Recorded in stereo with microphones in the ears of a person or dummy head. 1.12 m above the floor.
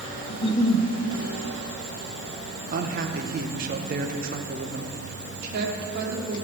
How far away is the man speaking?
About 0.9 m.